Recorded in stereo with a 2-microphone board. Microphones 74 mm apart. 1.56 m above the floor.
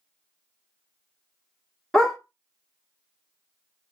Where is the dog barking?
5° left (ahead or behind), 1.1 m.